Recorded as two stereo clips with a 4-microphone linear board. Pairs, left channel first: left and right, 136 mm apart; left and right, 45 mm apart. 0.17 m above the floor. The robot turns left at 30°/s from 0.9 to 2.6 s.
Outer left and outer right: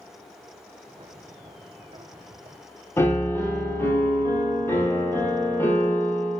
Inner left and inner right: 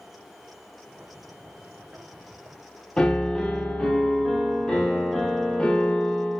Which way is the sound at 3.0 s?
15° left (ahead or behind).